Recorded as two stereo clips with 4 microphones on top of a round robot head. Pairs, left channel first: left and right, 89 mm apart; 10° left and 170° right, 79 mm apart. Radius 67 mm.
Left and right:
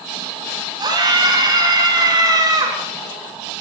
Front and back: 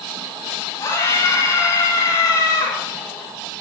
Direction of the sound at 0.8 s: 55° right.